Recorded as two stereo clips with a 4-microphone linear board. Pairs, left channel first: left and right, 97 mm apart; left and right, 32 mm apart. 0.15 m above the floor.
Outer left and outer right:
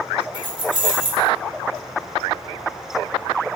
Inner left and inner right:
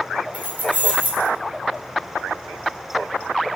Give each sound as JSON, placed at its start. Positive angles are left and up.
{"t": 0.3, "sound": "keys jangling", "side_deg": -55, "distance_m": 1.1}